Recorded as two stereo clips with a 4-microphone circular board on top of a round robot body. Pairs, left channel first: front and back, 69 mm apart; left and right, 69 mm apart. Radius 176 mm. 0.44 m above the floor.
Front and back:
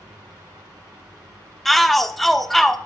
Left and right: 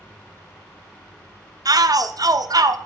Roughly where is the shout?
Right.